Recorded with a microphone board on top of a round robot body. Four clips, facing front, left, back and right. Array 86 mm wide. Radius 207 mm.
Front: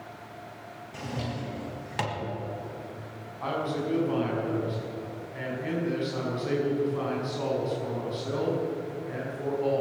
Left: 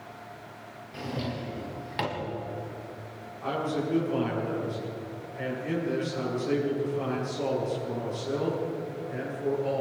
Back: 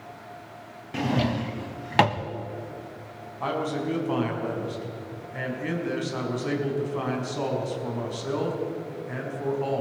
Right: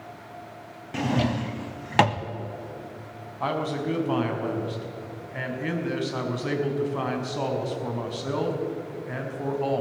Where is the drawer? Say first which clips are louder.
Right 9 dB, back 10 dB; 130° right, 1.2 m.